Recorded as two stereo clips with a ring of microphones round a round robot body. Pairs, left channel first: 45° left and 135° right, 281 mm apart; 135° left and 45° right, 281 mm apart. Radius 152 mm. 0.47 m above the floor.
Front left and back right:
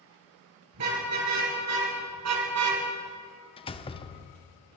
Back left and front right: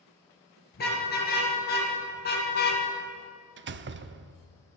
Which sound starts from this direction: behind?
A car horn, at 0.7 s.